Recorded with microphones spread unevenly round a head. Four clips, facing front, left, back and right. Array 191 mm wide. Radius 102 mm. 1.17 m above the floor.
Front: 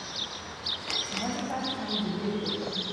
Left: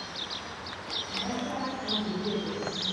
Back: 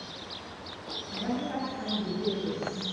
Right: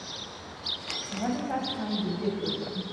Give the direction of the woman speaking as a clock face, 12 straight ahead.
3 o'clock.